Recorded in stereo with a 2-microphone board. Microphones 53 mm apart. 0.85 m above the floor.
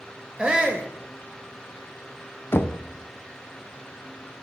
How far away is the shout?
About 0.7 m.